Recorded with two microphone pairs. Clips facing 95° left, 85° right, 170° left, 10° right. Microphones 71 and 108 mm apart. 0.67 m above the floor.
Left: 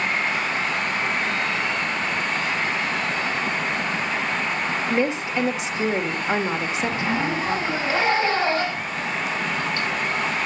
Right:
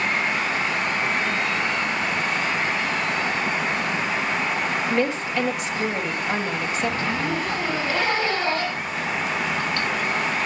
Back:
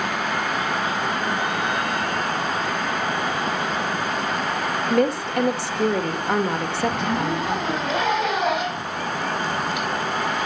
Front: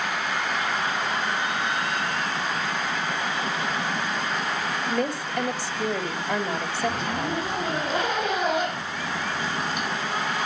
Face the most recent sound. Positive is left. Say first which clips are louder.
# left 2 dB, back 4 dB
turn(degrees=165)